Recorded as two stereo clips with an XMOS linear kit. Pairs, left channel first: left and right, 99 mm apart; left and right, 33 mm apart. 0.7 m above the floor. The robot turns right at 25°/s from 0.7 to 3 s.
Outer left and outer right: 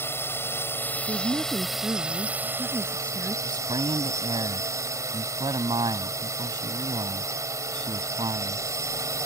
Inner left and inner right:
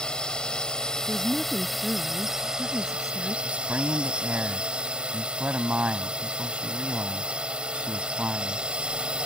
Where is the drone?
155° left; by 9.3 s 145° right.